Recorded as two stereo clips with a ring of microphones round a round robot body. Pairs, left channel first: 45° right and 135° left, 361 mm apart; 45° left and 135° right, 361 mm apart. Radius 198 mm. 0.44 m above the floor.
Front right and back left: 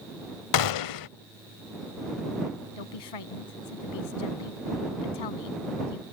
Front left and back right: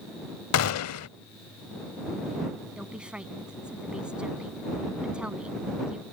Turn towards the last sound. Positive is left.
turn(degrees=-45)